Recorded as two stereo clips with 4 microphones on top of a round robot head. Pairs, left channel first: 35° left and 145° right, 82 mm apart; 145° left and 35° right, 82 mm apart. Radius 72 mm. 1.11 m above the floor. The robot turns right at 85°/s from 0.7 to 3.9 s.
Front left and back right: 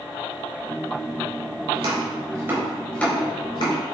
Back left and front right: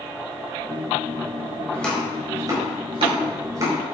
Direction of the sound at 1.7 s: 145° right.